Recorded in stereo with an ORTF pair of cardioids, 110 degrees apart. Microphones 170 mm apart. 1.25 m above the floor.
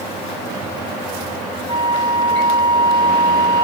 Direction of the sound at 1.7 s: 25° right.